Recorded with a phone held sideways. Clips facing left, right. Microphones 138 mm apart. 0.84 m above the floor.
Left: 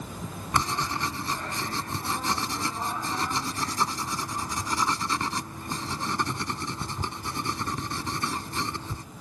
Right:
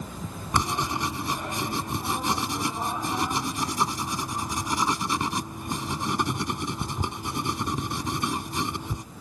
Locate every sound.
0.5 s writing: 15° right (ahead or behind)